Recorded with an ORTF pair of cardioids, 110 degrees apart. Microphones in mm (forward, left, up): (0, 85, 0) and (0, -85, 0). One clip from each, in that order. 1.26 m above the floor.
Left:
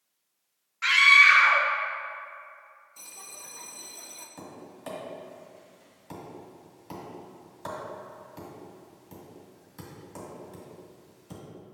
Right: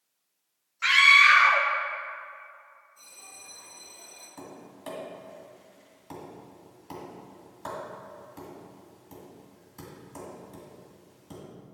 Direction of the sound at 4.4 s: 5° right.